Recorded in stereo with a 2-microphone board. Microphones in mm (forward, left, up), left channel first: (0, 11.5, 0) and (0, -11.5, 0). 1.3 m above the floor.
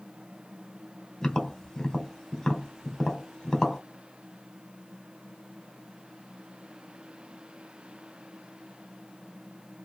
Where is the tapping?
25° left (ahead or behind), 1.1 m.